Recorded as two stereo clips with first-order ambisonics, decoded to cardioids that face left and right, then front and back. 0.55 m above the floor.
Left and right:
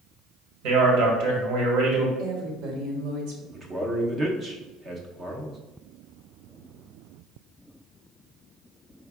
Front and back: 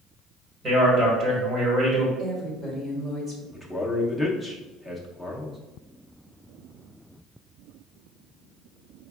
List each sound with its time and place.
0.6 s a man speaking: 110° right, 1.8 m
2.2 s a woman speaking: 100° right, 1.5 m
3.5 s a man speaking: 100° right, 0.6 m